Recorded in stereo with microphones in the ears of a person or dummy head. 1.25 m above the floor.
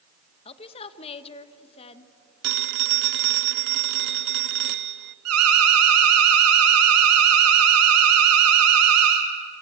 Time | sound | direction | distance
0.5 | a woman speaking | 25° left (ahead or behind) | 1.3 m
2.4 | a phone ringing | 50° right (ahead or behind) | 0.6 m
5.2 | an alarm | 85° right | 4 m